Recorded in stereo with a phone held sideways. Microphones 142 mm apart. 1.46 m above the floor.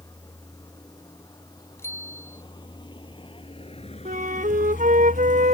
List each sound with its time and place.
0.0 s a vehicle: 25° left (ahead or behind); by 5.5 s 45° left (ahead or behind)
1.8 s a bicycle bell: 20° left (ahead or behind)
4.0 s a flute: 75° right (ahead or behind)